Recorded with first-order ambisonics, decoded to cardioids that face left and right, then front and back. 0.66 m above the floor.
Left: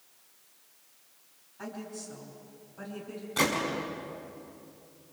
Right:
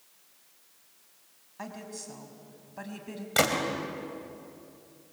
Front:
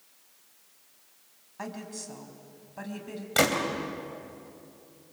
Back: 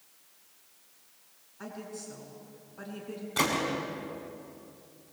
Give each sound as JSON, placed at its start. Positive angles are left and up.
{"t": 1.6, "sound": "a woman speaking", "azimuth_deg": -30, "distance_m": 5.0}
{"t": 3.4, "sound": "a gunshot", "azimuth_deg": -50, "distance_m": 4.0}